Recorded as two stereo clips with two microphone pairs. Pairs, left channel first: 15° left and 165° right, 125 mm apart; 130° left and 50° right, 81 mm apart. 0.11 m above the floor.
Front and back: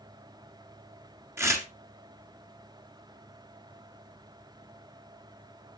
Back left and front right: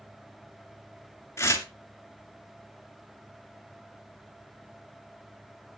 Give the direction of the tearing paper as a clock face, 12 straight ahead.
7 o'clock.